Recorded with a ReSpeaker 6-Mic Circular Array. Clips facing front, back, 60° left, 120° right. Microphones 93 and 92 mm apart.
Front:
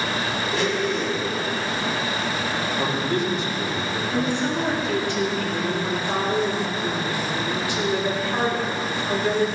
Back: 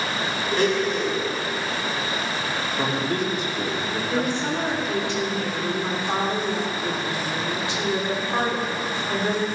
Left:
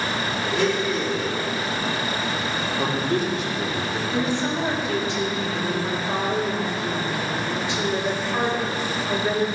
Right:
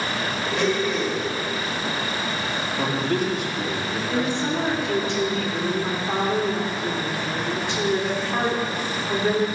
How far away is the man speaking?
About 2.5 m.